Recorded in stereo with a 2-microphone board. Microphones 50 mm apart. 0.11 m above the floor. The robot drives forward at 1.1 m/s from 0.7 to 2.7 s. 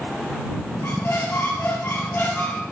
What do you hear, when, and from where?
0.8 s a squeak: 50° left (ahead or behind), 1.8 m; by 2.6 s 40° left (ahead or behind), 2.5 m